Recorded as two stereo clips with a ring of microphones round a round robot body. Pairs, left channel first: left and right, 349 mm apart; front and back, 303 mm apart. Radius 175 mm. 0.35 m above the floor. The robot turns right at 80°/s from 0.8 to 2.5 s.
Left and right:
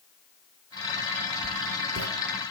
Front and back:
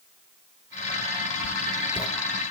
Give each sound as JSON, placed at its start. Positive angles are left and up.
{"t": 1.4, "sound": "writing", "azimuth_deg": -120, "distance_m": 1.2}